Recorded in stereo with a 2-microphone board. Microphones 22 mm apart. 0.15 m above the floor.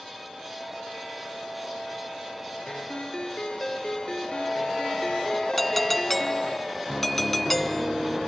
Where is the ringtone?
45° left (ahead or behind).